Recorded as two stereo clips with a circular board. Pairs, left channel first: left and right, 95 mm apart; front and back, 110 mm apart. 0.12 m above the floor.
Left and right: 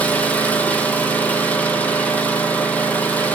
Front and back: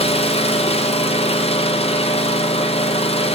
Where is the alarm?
I don't hear an alarm.